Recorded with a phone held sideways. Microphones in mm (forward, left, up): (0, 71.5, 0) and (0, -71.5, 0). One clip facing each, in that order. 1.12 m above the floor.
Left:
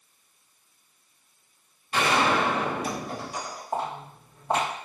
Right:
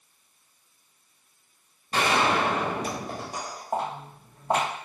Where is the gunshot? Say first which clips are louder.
Even; 40° right (ahead or behind), 1.0 m.